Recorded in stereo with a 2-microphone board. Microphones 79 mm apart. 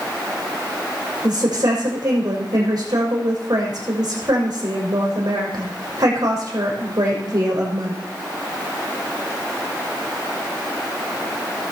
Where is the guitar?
No guitar in this recording.